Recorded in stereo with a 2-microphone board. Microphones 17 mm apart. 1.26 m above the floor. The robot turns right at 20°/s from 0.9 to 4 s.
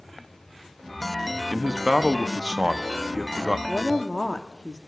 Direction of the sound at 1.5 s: 115° right.